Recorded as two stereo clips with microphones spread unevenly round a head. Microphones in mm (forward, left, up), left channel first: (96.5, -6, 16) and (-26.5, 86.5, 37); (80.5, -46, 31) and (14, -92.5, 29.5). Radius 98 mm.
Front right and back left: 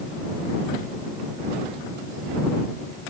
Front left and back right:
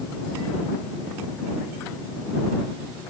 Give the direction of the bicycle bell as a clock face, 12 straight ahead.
I don't hear a bicycle bell.